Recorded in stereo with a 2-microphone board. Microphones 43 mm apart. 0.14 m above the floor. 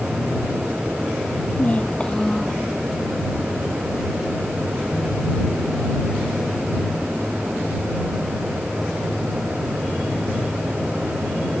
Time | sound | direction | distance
1.6 | a child speaking | 35° left (ahead or behind) | ?